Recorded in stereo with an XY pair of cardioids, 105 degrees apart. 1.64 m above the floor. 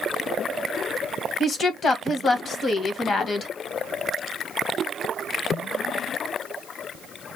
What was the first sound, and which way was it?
A woman speaking, 40° left.